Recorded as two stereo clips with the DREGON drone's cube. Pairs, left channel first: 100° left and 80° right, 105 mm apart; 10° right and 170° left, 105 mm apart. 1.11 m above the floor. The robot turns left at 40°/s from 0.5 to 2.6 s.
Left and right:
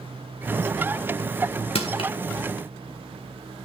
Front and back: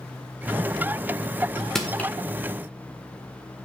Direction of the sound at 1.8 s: 75° left.